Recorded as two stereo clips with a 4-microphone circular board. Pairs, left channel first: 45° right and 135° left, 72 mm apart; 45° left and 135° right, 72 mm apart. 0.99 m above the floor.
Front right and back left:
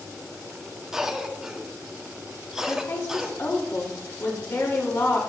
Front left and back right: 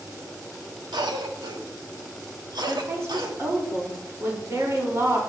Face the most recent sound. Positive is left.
turn(degrees=-90)